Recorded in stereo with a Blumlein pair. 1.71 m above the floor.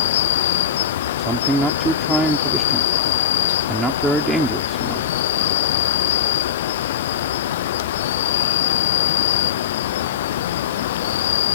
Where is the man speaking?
10° right.